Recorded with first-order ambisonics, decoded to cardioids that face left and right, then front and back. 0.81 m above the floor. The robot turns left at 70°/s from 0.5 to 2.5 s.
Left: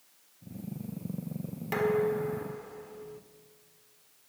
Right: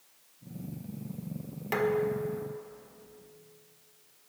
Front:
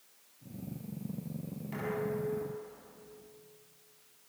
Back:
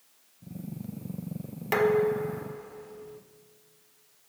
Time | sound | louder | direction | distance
1.7 | dishes clattering | left 1 dB, back 12 dB | 175° right | 1.4 m